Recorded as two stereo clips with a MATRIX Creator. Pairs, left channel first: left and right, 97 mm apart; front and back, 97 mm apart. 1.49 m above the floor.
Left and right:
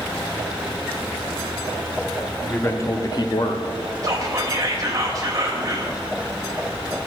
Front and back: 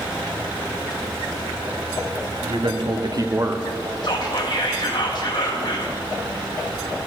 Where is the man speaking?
155° left, 1.0 m; by 3.7 s 110° left, 0.8 m.